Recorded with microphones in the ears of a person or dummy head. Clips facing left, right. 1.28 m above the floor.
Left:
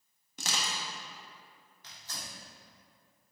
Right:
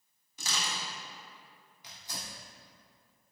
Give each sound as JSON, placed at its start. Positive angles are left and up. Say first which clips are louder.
{"t": 0.4, "sound": "crushing", "louder": "left 1 dB", "side_deg": 55, "distance_m": 1.5}
{"t": 1.8, "sound": "tearing paper", "louder": "right 2 dB", "side_deg": -15, "distance_m": 3.0}